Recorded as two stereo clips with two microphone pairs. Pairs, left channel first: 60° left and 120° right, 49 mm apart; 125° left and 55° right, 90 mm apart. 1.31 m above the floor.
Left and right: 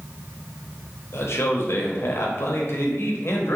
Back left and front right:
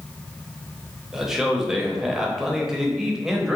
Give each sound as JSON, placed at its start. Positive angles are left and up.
{"t": 1.1, "sound": "a man speaking", "azimuth_deg": 30, "distance_m": 0.8}